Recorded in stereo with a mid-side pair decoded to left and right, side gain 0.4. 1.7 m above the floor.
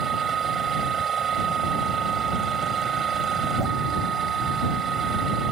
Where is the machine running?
50° right.